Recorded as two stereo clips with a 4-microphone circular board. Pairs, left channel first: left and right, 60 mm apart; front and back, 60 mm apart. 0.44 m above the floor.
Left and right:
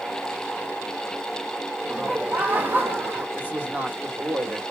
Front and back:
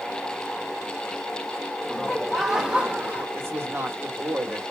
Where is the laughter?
60° right, 0.9 m; by 3.2 s 120° right, 1.3 m.